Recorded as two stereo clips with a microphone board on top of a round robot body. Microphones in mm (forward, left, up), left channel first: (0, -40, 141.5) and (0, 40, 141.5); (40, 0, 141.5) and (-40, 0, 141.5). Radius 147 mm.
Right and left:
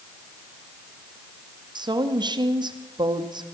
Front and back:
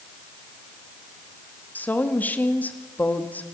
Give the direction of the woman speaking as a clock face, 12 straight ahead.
10 o'clock.